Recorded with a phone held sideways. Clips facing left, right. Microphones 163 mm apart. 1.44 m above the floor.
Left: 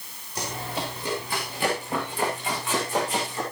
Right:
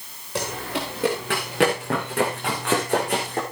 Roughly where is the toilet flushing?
I don't hear a toilet flushing.